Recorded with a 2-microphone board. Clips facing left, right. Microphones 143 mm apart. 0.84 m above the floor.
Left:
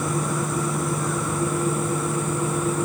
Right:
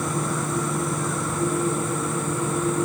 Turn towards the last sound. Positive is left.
No sound to turn to.